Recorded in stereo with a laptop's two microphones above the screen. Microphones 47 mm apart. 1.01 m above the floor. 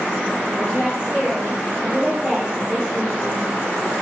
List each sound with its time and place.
0.5 s a woman speaking: 35° left (ahead or behind), 2.5 m; by 3.9 s centre (ahead or behind), 3 m